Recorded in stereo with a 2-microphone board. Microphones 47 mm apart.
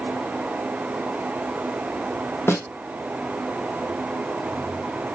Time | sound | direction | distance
2.5 | a snare drum | 75° left (ahead or behind) | 1.1 m